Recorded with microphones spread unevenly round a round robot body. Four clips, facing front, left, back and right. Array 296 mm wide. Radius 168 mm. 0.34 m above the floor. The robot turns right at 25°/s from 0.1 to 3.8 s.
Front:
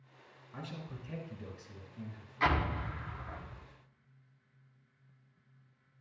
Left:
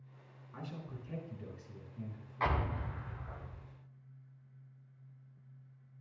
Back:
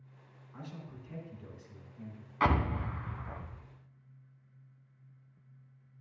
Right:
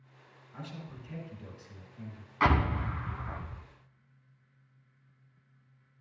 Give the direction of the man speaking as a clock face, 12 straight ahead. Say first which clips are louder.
Right 1 dB, front 2 dB; 11 o'clock.